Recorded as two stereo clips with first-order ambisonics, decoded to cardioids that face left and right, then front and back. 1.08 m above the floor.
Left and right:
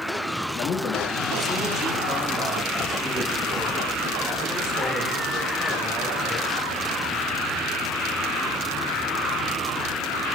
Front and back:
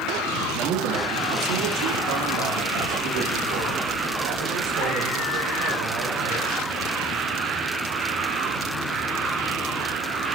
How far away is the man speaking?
About 2 m.